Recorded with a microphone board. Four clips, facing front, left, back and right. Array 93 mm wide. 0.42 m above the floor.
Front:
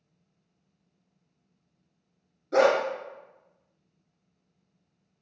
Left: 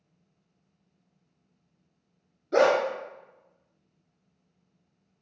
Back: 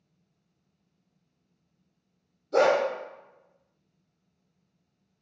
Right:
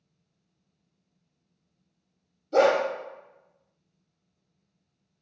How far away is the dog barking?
About 1.4 m.